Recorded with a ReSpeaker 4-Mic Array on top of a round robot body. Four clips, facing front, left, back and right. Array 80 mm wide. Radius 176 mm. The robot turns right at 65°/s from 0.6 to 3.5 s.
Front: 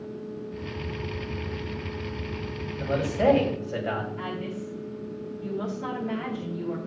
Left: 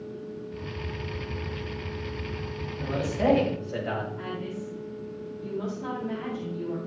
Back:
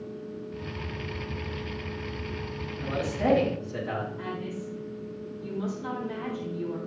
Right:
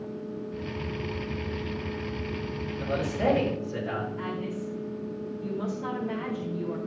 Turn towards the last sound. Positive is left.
turn(degrees=-5)